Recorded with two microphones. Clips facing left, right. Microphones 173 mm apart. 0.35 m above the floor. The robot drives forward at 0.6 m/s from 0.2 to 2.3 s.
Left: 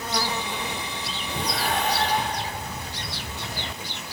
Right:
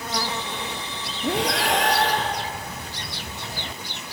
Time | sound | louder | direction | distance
1.2 | breathing | right 6 dB | 80° right | 3 m